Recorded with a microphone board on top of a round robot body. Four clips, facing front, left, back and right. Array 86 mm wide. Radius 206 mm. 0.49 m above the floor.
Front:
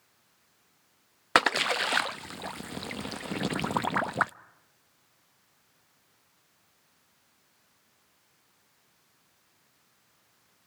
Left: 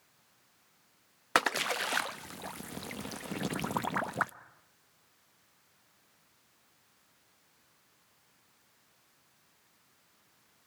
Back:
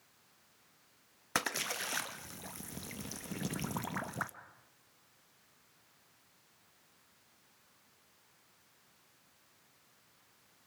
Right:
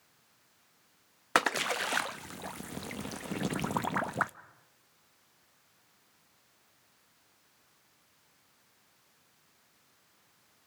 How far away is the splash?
About 0.7 m.